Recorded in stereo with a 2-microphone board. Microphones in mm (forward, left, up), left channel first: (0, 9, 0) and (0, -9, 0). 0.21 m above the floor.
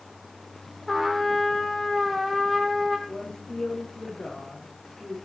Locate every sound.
0.9 s a trumpet: centre (ahead or behind), 3 m
3.1 s a woman speaking: 60° left (ahead or behind), 9 m